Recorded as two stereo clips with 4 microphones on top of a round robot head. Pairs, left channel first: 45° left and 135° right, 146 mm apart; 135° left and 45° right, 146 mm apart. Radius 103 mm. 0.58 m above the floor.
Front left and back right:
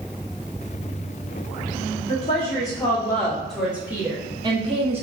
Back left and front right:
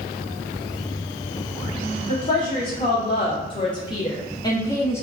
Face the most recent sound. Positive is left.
turn(degrees=-160)